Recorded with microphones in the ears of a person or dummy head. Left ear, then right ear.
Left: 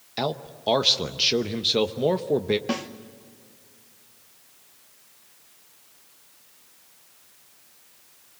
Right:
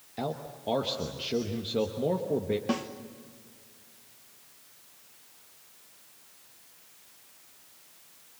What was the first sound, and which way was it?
A man speaking, 50° left (ahead or behind).